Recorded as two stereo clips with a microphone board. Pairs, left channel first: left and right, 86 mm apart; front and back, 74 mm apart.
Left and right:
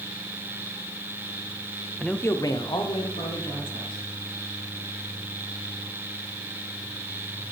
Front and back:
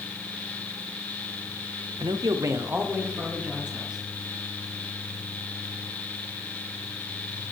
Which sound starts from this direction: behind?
A man speaking, at 2.0 s.